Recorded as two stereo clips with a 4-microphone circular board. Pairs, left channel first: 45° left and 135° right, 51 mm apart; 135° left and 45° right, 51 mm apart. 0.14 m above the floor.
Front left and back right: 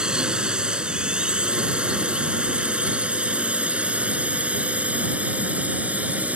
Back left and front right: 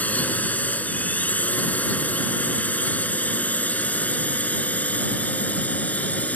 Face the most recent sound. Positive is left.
turn(degrees=180)